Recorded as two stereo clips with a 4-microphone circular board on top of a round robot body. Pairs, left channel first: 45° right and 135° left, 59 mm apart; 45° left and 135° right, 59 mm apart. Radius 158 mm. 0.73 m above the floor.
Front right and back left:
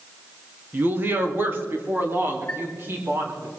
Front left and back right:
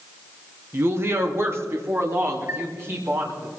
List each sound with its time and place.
0.7 s a woman speaking: 170° right, 1.7 m; by 3.5 s 175° right, 4 m
2.5 s a chime: 110° right, 5.5 m